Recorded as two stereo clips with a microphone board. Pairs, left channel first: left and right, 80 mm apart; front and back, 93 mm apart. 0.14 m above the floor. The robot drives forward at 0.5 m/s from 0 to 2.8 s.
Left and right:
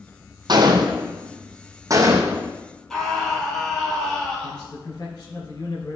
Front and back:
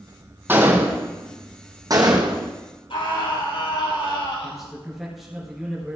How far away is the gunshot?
About 1.4 m.